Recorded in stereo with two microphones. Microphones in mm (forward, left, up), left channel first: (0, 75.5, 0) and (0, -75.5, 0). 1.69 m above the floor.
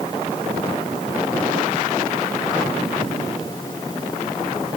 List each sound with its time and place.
Only background noise.